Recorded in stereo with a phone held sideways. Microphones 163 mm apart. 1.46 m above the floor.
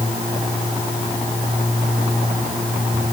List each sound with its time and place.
Only background noise.